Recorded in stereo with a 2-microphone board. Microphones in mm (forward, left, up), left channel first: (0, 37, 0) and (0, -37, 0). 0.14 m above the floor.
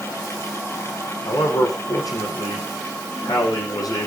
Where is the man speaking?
65° left (ahead or behind), 7.5 m.